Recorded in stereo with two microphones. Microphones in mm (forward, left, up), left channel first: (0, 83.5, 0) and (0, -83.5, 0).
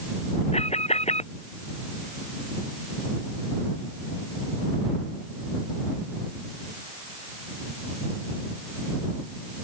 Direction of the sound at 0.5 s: 40° left (ahead or behind).